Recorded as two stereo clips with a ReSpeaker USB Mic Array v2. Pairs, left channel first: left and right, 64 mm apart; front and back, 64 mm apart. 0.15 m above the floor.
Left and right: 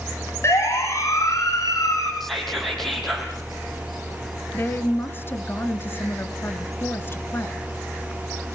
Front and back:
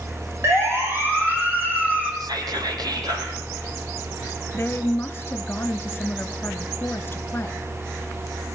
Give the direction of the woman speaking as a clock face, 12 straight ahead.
10 o'clock.